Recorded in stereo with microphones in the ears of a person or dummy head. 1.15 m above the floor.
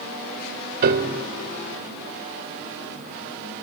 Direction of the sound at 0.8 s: 50° right (ahead or behind).